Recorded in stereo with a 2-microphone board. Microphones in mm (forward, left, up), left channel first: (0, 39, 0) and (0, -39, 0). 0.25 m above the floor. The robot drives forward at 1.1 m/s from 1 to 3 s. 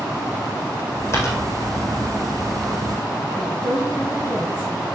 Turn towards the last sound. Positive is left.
turn(degrees=15)  # may be behind; listen again after turning